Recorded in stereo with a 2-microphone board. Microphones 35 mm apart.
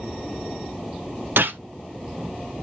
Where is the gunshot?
70° right (ahead or behind), 0.6 m.